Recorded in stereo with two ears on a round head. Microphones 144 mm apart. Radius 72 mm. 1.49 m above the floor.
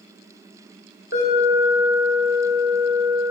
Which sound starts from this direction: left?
An alarm, at 1.1 s.